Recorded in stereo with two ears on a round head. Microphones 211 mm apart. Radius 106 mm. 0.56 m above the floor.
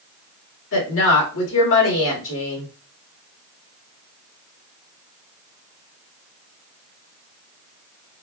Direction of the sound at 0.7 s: 60° left (ahead or behind).